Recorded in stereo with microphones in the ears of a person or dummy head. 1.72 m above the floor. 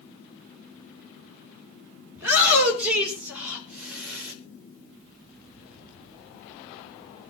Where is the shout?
15° right (ahead or behind), 7 m; by 4.3 s 5° right (ahead or behind), 6 m.